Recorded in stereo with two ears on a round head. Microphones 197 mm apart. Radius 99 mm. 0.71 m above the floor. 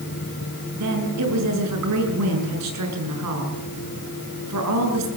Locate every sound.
0.7 s a woman speaking: 80° right, 7.5 m